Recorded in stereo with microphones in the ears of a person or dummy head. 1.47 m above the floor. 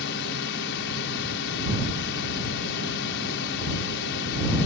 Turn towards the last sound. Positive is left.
turn(degrees=75)  # may be behind; listen again after turning